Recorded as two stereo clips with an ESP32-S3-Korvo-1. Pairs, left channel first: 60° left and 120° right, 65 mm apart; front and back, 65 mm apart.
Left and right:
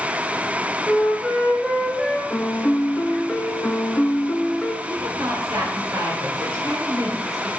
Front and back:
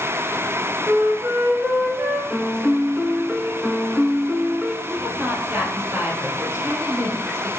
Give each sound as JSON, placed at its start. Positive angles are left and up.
{"t": 0.9, "sound": "a flute", "azimuth_deg": 150, "distance_m": 1.9}
{"t": 2.3, "sound": "a piano", "azimuth_deg": 95, "distance_m": 0.6}
{"t": 4.9, "sound": "a woman speaking", "azimuth_deg": -135, "distance_m": 3.0}